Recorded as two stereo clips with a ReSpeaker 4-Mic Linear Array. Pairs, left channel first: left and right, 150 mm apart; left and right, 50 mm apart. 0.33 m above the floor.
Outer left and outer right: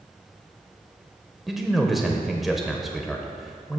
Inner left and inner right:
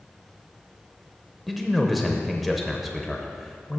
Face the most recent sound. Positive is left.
turn(degrees=0)  # may be behind; listen again after turning